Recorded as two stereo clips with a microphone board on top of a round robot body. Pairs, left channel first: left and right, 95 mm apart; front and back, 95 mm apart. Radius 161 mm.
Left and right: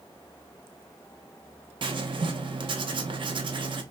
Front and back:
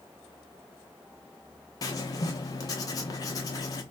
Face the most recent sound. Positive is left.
turn(degrees=-55)